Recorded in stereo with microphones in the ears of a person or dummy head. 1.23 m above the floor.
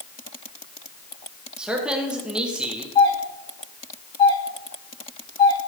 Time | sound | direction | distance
1.6 | a man speaking | 5° right (ahead or behind) | 1.0 m
3.0 | a doorbell | 30° left (ahead or behind) | 5 m